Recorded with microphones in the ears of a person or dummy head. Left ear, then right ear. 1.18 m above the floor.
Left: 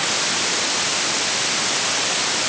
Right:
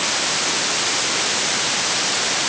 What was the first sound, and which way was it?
Only background noise.